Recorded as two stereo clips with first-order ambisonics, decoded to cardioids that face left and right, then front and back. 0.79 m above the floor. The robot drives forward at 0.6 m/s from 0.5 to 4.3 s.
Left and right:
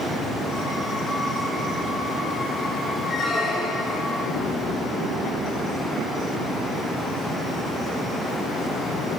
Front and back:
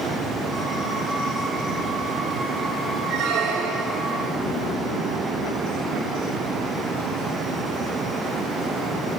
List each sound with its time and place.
3.1 s a squeak: 165° left, 3 m